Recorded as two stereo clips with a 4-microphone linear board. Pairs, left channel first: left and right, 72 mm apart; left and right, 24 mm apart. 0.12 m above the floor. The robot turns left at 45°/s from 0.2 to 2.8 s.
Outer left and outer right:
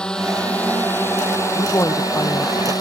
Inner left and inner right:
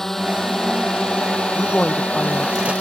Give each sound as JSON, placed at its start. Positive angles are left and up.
{"t": 0.0, "sound": "a drone", "side_deg": 10}
{"t": 1.5, "sound": "a woman speaking", "azimuth_deg": 65}